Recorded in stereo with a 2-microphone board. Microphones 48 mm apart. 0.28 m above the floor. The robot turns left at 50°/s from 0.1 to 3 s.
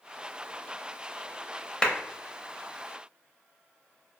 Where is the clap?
20° left (ahead or behind), 0.7 m.